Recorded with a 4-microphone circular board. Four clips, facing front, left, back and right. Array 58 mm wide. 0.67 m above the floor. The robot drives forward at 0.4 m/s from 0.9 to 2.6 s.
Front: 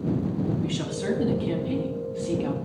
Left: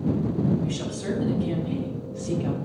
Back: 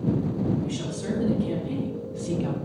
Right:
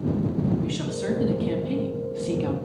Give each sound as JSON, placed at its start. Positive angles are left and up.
{"t": 0.6, "sound": "a woman speaking", "azimuth_deg": -40, "distance_m": 1.2}